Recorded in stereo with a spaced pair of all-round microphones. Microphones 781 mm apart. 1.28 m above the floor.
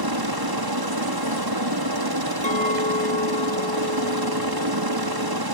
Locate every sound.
0.0 s a helicopter: 30° right (ahead or behind)
2.4 s a clink: 10° left (ahead or behind)